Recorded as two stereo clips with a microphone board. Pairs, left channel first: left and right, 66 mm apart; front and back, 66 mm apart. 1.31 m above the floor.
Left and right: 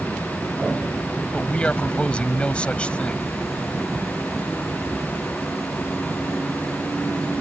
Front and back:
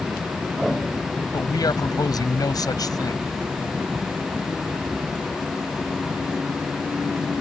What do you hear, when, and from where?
1.3 s a man speaking: 15° left